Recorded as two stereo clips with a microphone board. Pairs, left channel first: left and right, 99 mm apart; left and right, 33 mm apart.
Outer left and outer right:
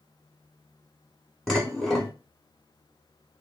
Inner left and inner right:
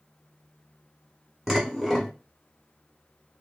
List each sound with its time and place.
1.5 s dishes clattering: centre (ahead or behind), 0.8 m